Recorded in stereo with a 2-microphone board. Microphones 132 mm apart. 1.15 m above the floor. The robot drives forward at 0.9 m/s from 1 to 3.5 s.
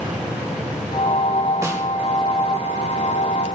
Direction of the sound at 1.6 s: 20° right (ahead or behind).